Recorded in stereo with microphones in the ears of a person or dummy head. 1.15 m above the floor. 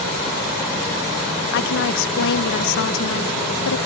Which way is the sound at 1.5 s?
60° left (ahead or behind).